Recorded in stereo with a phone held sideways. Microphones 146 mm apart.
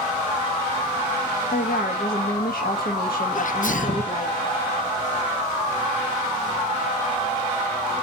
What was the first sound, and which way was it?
A woman speaking, 85° left.